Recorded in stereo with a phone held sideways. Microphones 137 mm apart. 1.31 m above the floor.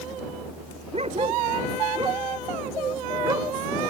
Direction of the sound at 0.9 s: 45° right (ahead or behind).